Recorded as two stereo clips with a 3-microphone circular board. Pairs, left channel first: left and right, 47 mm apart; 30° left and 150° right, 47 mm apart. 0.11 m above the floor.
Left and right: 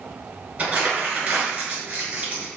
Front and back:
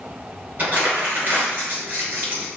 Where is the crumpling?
135° right, 2.0 m.